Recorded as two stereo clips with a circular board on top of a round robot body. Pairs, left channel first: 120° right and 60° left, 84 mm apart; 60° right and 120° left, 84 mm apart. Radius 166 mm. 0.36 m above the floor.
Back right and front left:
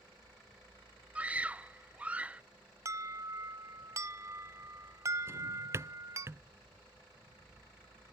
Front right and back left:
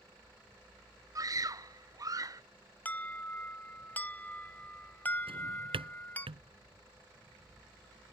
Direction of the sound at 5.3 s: 120° left.